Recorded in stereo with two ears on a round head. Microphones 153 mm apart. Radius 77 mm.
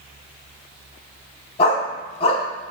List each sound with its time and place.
1.6 s a dog barking: 35° left (ahead or behind), 1.2 m